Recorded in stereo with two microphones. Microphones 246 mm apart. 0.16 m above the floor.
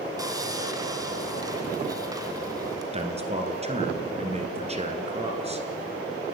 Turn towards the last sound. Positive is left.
turn(degrees=-25)  # may be behind; listen again after turning